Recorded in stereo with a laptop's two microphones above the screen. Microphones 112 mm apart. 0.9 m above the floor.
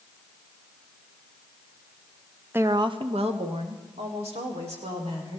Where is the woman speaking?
20° right (ahead or behind), 0.6 m; by 5.4 s 80° right, 4 m.